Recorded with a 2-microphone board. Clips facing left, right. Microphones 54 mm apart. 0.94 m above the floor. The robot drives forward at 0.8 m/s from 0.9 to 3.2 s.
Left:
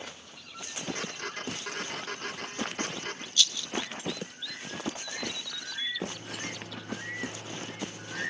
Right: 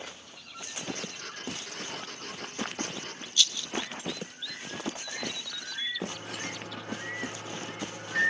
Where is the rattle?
20° right (ahead or behind), 0.8 m.